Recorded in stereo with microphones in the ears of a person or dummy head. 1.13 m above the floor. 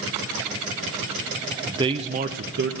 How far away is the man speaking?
About 0.6 m.